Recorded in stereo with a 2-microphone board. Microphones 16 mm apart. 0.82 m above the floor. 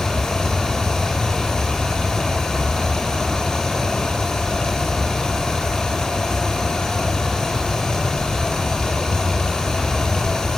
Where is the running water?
65° left (ahead or behind), 8 m.